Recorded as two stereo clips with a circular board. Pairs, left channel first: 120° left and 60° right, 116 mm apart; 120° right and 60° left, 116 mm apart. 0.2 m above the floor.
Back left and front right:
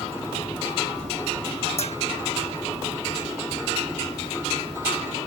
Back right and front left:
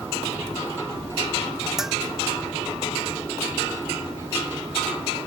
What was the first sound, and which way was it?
A bell, 145° left.